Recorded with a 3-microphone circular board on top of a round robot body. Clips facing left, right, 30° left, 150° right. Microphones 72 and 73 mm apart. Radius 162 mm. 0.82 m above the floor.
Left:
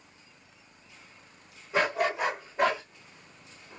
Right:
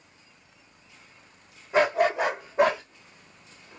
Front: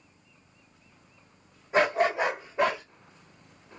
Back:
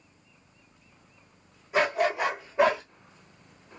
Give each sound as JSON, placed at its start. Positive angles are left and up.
{"t": 1.7, "sound": "a dog barking", "azimuth_deg": -25, "distance_m": 1.5}